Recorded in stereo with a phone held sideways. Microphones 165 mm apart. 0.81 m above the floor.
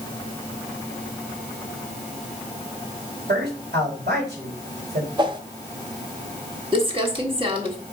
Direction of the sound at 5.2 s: 30° right (ahead or behind).